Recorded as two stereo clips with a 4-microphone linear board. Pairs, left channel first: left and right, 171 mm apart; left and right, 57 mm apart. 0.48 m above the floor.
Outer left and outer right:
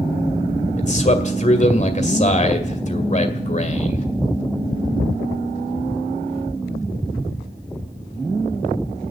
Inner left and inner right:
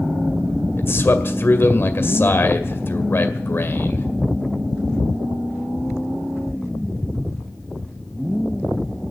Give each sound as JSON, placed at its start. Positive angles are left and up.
{"t": 0.8, "sound": "a man speaking", "side_deg": 45, "distance_m": 2.0}